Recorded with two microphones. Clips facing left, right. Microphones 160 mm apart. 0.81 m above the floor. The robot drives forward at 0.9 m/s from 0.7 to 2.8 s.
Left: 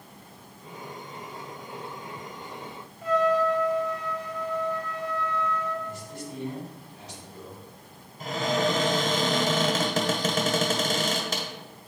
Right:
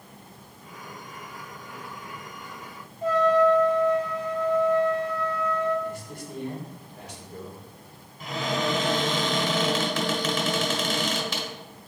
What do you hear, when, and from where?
3.0 s a trumpet: 30° right (ahead or behind), 2 m
5.8 s a man speaking: 55° right (ahead or behind), 3 m
8.2 s a cupboard door: 40° left (ahead or behind), 1.4 m